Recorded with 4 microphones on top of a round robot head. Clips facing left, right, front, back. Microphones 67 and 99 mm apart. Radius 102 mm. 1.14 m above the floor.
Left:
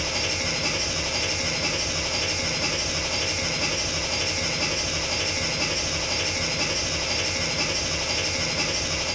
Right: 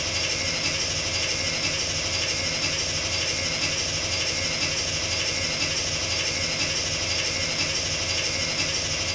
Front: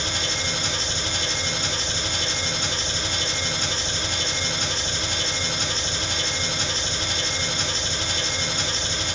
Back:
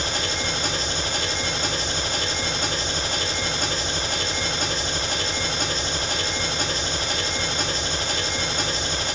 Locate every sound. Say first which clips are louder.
0.0 s an engine running: left 2 dB, back 2 dB; 140° left, 0.8 m